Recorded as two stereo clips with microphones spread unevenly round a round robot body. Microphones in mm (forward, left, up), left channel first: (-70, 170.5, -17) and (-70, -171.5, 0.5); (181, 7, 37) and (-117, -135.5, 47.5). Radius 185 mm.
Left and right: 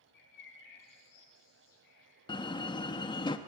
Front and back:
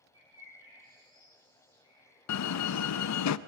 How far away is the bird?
About 9.5 m.